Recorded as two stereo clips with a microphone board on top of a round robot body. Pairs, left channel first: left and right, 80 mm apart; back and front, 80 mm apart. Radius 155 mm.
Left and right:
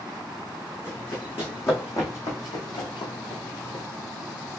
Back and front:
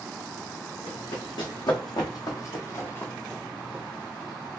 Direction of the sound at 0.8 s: 155° left.